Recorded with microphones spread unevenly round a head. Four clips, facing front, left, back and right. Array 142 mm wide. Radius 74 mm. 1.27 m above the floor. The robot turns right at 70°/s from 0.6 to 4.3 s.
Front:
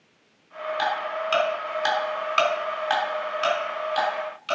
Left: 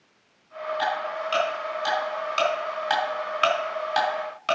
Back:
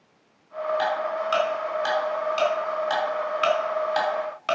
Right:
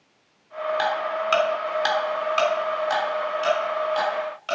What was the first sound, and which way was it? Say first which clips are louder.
Ticking: right 1 dB, front 2 dB; 115° right.